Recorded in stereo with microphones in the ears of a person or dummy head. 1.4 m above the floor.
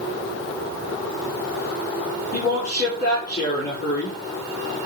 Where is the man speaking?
40° left (ahead or behind), 5 m.